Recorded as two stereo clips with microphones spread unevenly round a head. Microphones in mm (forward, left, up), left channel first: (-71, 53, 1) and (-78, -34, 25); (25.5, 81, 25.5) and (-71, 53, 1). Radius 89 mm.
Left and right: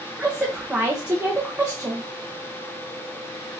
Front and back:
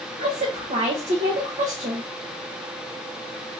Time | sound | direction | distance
0.2 | a woman speaking | 175° right | 1.3 m